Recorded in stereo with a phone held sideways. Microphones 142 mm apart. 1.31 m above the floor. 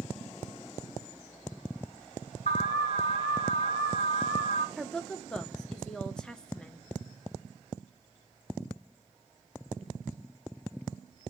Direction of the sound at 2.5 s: 70° left (ahead or behind).